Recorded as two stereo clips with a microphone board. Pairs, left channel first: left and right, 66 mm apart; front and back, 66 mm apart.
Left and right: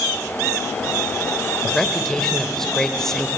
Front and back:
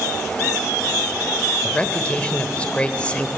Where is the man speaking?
20° left, 1.4 m.